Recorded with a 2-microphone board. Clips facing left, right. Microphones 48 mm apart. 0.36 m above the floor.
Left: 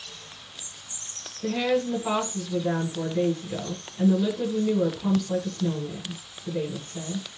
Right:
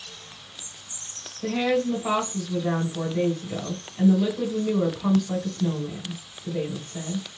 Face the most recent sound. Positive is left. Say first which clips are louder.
# right 1 dB
turn(degrees=-35)  # may be behind; listen again after turning